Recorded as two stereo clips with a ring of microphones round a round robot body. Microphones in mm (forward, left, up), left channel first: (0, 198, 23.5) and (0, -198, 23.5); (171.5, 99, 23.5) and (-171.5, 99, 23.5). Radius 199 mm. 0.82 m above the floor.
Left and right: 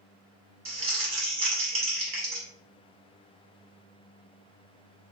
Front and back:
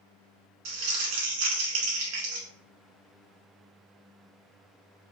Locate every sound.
0.7 s crumpling: 165° right, 1.1 m